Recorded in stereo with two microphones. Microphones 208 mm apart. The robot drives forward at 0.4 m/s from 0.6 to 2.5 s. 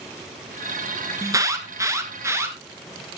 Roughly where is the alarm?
Centre.